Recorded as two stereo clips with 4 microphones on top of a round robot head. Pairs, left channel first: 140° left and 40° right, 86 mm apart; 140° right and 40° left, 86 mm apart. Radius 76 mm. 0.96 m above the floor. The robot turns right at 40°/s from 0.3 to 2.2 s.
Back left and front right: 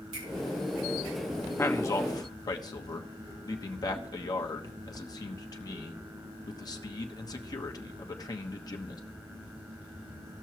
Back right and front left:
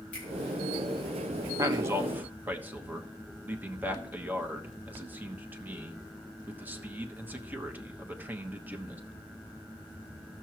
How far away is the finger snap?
About 4.5 m.